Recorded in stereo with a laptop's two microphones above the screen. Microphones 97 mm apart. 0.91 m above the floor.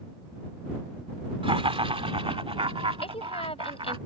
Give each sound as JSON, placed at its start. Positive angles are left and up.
{"t": 1.4, "sound": "laughter", "side_deg": -75}
{"t": 3.0, "sound": "a woman speaking", "side_deg": 85}